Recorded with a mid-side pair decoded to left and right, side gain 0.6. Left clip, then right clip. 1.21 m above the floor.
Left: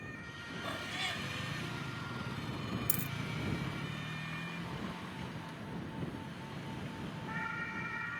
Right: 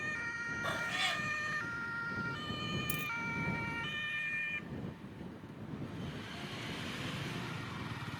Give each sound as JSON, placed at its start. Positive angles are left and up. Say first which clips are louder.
{"t": 0.6, "sound": "a cat meowing", "louder": "right 3 dB", "azimuth_deg": -20}
{"t": 2.9, "sound": "a dropped coin", "louder": "right 4 dB", "azimuth_deg": 40}